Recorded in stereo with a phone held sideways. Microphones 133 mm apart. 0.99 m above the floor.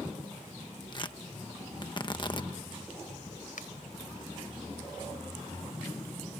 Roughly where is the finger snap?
Left.